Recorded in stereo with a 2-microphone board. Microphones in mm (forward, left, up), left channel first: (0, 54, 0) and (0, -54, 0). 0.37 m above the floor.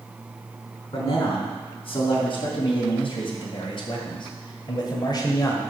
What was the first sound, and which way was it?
A man speaking, 55° left (ahead or behind).